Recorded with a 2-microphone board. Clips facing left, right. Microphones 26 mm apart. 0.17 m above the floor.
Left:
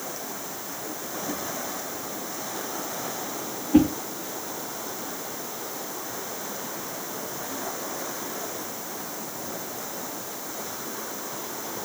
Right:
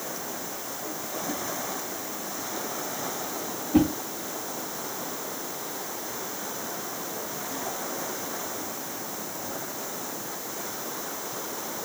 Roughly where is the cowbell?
I don't hear a cowbell.